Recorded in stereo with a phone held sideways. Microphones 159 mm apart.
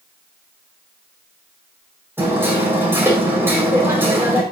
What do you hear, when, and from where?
2.2 s hammering: 15° right (ahead or behind), 5 m